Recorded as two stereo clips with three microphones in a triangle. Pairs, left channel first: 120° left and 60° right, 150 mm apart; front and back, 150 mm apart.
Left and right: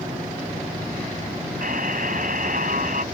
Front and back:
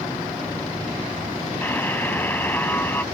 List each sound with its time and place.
1.6 s a buzzer: 75° right